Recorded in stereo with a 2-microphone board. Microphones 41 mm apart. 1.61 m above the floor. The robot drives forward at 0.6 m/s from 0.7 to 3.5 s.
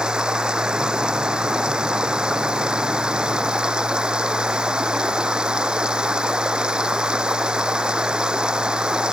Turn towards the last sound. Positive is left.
turn(degrees=-20)  # may be behind; listen again after turning